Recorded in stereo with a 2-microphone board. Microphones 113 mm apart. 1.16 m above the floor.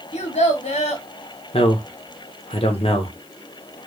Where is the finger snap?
I don't hear a finger snap.